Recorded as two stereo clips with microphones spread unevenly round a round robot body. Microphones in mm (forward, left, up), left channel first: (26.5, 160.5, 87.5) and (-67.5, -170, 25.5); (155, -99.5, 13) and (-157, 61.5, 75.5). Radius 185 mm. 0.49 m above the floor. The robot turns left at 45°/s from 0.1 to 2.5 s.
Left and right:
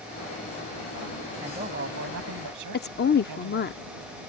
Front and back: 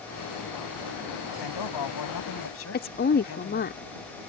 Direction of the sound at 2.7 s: 15° left.